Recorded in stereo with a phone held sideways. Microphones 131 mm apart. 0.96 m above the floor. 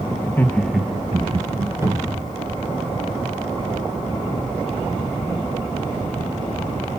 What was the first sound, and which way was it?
Laughter, 20° left (ahead or behind).